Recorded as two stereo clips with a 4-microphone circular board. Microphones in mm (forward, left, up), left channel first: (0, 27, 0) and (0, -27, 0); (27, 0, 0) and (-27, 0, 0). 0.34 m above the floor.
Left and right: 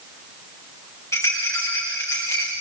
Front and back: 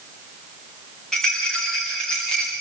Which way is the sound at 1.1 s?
75° left.